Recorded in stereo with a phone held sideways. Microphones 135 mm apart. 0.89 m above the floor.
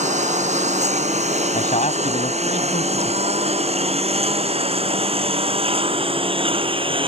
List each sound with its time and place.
0.0 s a lawn mower: 70° right (ahead or behind); by 7.1 s 45° right (ahead or behind)
1.5 s a man speaking: 65° left (ahead or behind)